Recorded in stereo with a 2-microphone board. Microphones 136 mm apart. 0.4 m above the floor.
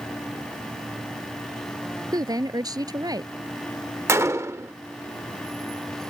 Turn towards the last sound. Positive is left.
turn(degrees=-20)  # may be behind; listen again after turning